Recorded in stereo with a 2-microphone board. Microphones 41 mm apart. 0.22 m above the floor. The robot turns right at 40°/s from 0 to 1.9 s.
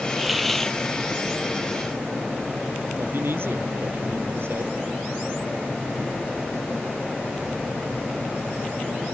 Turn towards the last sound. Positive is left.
turn(degrees=-60)  # may be behind; listen again after turning